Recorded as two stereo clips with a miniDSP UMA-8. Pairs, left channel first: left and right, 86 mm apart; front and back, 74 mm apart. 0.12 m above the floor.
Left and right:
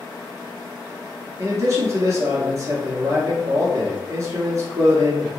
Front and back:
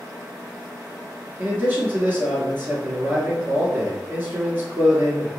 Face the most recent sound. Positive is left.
turn(degrees=-125)